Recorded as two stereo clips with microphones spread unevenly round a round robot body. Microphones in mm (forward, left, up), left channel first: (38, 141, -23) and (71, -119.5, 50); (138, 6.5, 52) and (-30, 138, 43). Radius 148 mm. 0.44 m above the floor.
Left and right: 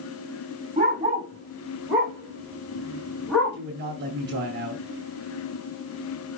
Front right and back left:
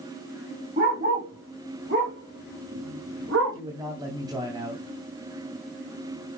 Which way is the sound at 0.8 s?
155° right.